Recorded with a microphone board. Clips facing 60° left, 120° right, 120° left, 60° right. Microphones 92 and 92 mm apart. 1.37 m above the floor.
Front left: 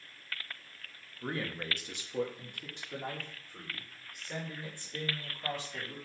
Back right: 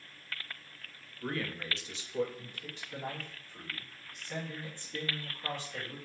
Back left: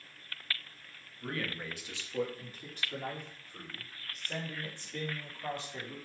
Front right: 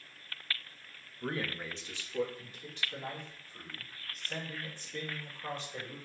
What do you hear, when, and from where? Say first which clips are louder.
1.2 s a man speaking: even, front right 1 dB; 15° right, 0.7 m; by 6.0 s 95° left, 4.5 m